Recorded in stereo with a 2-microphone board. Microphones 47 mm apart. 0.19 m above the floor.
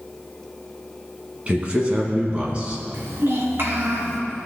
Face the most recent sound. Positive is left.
turn(degrees=-60)  # may be behind; listen again after turning